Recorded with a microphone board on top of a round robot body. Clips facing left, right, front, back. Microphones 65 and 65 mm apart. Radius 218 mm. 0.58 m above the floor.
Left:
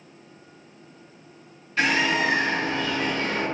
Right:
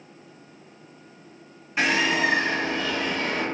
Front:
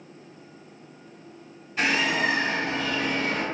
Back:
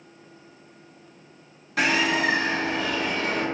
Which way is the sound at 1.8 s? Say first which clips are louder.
Even, back 2 dB; 165° right.